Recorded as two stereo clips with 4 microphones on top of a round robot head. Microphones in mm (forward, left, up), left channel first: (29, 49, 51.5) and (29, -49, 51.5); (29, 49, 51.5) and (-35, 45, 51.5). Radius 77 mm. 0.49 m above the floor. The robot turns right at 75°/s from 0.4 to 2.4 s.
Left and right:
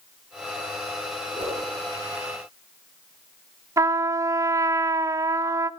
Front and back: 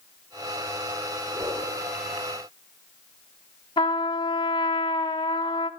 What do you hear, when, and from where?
1.3 s a whoosh: 135° right, 8.5 m; by 1.6 s 110° right, 8.5 m
3.8 s a trumpet: 30° right, 0.7 m